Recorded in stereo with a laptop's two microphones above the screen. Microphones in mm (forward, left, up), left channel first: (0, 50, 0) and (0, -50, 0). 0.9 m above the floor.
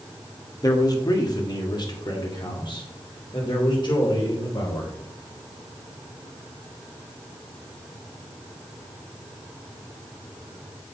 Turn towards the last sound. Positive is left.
turn(degrees=50)  # may be behind; listen again after turning